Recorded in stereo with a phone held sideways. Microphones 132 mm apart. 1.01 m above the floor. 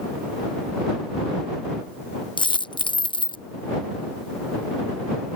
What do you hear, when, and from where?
2.4 s a dropped coin: 35° left (ahead or behind)